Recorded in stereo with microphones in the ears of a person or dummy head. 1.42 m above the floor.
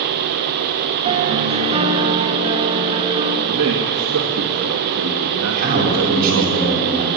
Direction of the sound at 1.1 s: 30° right (ahead or behind).